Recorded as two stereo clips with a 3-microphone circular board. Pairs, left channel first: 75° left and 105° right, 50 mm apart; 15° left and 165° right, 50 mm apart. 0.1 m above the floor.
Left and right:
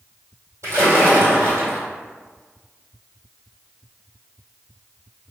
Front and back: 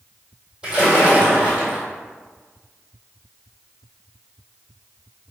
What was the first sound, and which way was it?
A splash, 95° right.